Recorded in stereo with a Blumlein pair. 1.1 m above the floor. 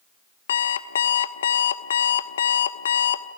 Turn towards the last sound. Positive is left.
turn(degrees=65)